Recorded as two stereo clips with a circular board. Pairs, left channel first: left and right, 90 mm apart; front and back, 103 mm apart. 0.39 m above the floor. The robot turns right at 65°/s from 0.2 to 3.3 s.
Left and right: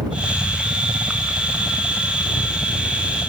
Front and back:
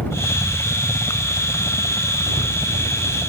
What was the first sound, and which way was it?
A helicopter, 65° right.